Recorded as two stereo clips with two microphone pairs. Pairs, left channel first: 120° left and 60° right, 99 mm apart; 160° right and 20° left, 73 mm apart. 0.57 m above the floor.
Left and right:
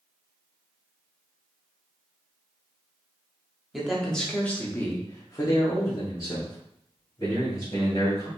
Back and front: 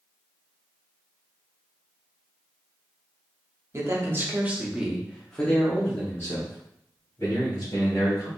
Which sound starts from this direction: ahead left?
A man speaking, at 3.7 s.